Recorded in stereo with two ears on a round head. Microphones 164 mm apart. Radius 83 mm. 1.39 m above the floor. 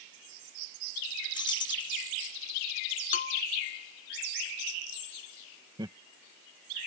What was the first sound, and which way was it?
Keys jangling, 25° left (ahead or behind).